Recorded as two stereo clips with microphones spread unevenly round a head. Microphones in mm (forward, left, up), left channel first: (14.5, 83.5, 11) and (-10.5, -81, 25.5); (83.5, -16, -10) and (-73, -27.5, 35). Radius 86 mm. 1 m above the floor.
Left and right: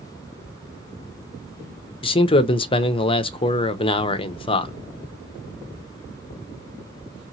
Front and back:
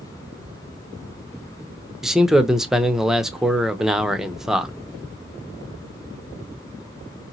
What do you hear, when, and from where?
2.0 s a man speaking: 75° left, 0.5 m